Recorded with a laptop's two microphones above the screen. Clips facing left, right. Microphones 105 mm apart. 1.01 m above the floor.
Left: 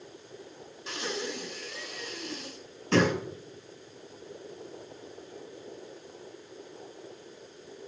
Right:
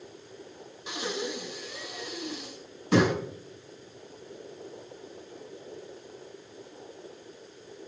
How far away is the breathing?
About 5 m.